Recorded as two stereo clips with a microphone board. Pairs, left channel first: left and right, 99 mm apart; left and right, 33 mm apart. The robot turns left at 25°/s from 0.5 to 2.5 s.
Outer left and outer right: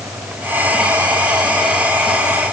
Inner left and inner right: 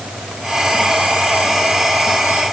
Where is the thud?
I don't hear a thud.